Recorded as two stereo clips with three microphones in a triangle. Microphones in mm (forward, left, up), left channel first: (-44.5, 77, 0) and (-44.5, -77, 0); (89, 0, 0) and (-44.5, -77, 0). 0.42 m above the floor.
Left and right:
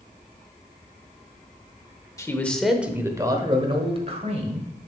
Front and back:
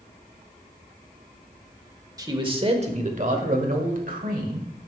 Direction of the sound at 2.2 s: 155° left.